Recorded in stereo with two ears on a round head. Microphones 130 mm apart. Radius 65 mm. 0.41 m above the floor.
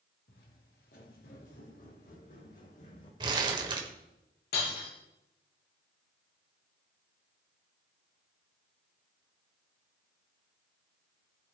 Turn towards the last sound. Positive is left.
turn(degrees=85)